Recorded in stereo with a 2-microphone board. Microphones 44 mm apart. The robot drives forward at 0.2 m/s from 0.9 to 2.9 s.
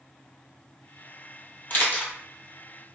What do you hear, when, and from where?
1.7 s a camera shutter: 40° left (ahead or behind), 1.1 m